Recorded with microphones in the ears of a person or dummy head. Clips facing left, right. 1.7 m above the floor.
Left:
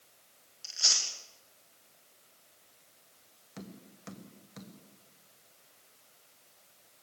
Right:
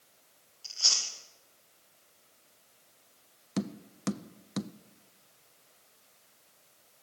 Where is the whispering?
I don't hear whispering.